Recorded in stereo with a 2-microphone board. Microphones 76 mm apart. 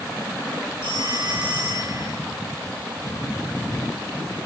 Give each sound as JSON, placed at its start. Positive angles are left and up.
{"t": 0.8, "sound": "a phone ringing", "side_deg": -80, "distance_m": 3.5}